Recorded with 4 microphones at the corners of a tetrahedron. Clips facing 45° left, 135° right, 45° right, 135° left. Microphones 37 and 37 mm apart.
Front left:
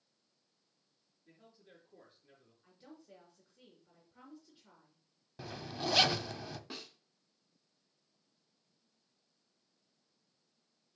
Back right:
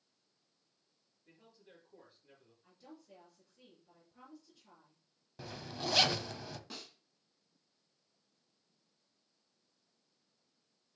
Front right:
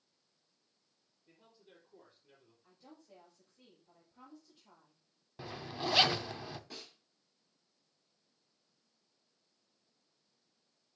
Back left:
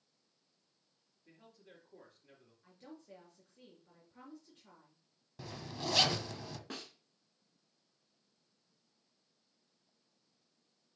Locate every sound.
1.2 s a man speaking: 135° left, 4 m
2.6 s a woman speaking: 110° left, 3.5 m
5.4 s a zipper: 30° right, 0.5 m
6.7 s a snare drum: 115° left, 1.7 m